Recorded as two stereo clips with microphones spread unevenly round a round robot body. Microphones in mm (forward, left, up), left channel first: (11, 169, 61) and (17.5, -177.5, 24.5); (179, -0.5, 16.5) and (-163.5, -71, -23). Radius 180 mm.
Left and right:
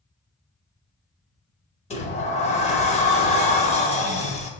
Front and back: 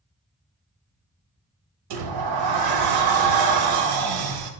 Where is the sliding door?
165° left, 0.9 m.